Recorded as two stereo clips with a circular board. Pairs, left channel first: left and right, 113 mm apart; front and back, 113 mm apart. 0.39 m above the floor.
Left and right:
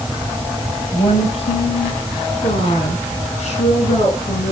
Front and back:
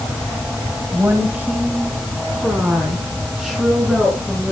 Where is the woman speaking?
110° left, 1.9 m; by 4.5 s 95° left, 4.5 m.